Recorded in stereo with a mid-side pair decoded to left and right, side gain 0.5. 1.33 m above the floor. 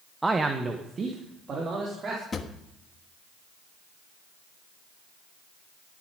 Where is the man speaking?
15° right, 1.0 m; by 2.2 s 45° right, 4 m.